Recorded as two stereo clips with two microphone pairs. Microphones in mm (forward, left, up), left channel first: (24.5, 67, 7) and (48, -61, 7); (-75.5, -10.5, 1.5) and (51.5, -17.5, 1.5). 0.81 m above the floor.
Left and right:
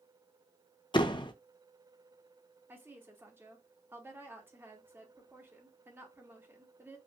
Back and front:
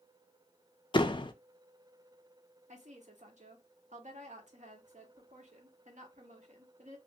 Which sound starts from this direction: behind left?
A door slam, at 0.9 s.